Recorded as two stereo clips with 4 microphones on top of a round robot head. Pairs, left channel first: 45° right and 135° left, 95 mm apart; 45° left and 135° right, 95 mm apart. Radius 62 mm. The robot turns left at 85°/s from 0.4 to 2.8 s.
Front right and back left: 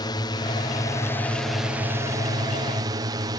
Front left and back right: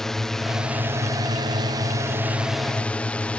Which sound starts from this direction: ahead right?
A drone, at 0.0 s.